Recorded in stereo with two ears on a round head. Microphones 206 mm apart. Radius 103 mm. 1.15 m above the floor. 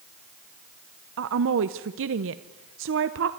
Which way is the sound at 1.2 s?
55° right (ahead or behind).